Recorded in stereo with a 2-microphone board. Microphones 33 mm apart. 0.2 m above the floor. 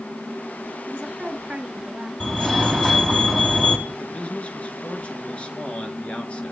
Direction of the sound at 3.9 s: 35° left (ahead or behind).